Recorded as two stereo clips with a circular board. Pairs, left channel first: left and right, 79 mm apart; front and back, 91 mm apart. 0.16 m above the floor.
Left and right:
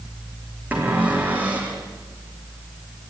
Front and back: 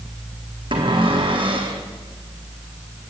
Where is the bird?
No bird in this recording.